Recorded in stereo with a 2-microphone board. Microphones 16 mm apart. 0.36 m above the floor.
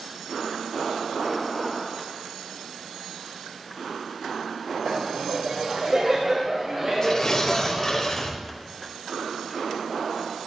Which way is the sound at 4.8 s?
35° right (ahead or behind).